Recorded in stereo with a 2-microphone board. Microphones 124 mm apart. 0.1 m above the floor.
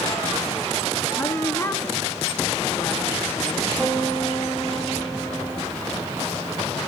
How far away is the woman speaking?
About 1.2 m.